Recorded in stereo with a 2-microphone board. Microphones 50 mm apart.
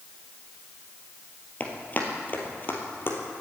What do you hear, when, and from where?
1.6 s running footsteps: 35° left (ahead or behind), 2 m; by 3.2 s 50° left (ahead or behind), 2.5 m